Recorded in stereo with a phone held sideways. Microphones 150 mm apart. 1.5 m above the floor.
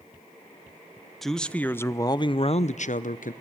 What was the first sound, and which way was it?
A man speaking, centre (ahead or behind).